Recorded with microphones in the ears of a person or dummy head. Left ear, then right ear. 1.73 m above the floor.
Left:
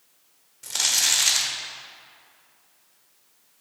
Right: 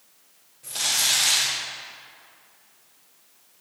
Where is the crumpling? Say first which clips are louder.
Left 1 dB; 55° left (ahead or behind), 1.3 m.